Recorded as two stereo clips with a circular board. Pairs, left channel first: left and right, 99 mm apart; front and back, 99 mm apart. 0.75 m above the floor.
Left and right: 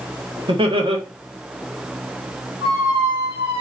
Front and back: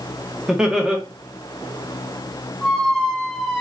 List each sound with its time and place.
0.5 s laughter: 95° right, 0.9 m
2.6 s a squeak: 80° right, 1.0 m